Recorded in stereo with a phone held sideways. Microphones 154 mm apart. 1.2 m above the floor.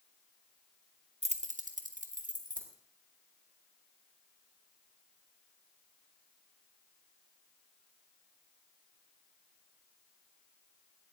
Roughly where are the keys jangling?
Right.